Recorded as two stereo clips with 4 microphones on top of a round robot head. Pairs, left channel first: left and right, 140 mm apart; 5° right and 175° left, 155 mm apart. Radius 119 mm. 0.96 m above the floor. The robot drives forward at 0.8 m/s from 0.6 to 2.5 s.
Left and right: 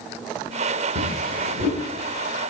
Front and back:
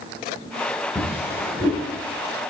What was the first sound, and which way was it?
A drawer, 85° right.